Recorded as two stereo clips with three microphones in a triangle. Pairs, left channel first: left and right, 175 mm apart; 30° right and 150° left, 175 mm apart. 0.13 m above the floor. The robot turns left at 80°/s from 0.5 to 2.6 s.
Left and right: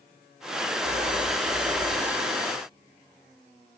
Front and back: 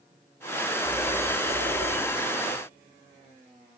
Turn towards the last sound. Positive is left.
turn(degrees=115)